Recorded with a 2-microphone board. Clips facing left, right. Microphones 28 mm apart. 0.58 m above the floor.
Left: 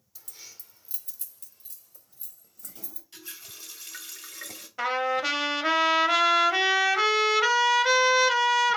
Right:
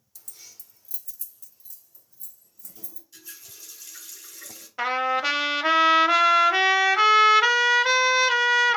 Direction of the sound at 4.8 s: 15° right (ahead or behind).